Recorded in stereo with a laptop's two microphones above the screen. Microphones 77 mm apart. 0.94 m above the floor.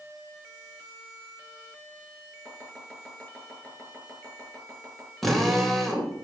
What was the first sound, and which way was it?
Chopping, 15° left (ahead or behind).